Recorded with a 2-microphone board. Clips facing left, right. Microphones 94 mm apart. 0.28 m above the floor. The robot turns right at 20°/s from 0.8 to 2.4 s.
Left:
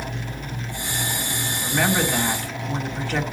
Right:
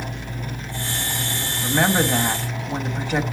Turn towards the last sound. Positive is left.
turn(degrees=-20)  # may be behind; listen again after turning